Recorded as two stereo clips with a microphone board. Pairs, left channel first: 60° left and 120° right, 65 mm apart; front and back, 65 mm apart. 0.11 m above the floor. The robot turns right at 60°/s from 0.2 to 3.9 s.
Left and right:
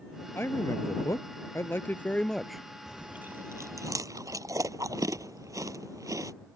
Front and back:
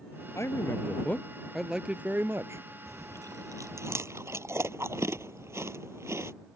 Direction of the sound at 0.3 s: 20° left.